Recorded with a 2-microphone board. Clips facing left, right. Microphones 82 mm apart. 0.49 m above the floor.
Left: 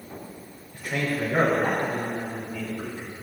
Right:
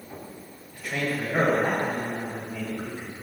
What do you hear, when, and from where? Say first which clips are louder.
0.7 s a man speaking: left 1 dB; 15° left (ahead or behind), 2 m; by 3.1 s 30° right (ahead or behind), 2.5 m